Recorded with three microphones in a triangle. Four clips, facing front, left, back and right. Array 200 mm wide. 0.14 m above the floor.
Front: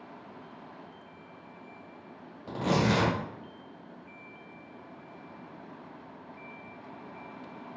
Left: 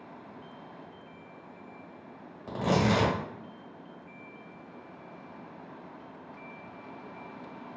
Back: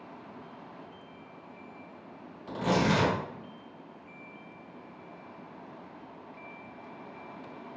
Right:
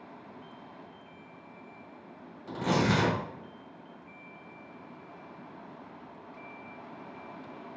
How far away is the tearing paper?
About 1.2 m.